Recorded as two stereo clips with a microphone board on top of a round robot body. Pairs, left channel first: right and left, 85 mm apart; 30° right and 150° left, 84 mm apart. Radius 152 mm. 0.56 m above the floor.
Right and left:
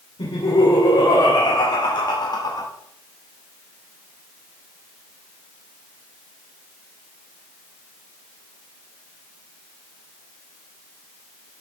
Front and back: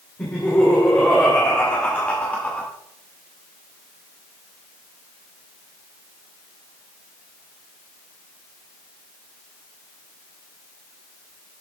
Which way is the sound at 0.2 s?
100° right.